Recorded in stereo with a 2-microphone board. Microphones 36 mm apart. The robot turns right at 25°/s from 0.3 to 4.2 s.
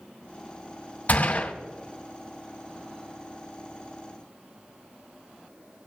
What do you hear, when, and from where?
1.1 s a gunshot: 45° left (ahead or behind), 2 m; by 1.5 s 40° left (ahead or behind), 2 m